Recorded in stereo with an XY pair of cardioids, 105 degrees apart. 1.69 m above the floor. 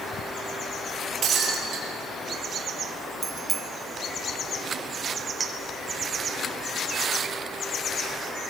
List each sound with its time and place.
1.2 s breaking glass: 60° right, 7 m
3.2 s a bicycle bell: 45° right, 2 m
5.4 s a clink: 30° right, 3.5 m